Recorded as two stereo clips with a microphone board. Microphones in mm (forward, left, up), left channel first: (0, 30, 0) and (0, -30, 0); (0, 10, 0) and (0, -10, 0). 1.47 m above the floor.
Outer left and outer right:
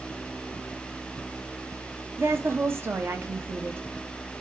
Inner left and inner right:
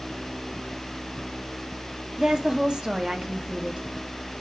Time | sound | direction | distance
2.2 | a woman speaking | 40° right (ahead or behind) | 0.6 m